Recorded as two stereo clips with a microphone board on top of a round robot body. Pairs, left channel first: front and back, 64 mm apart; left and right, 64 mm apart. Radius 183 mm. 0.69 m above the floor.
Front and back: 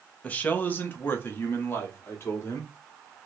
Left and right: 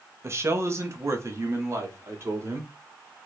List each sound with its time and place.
0.2 s a man speaking: 60° right, 1.2 m; by 2.7 s 50° right, 2.5 m